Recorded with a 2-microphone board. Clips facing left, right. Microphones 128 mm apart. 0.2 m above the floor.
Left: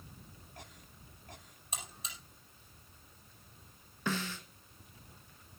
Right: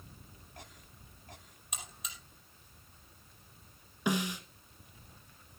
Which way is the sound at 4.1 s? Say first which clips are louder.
Right 4 dB; 15° right (ahead or behind).